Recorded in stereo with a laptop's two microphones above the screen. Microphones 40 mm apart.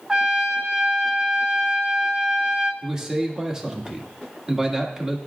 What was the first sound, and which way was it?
A trumpet, 20° right (ahead or behind).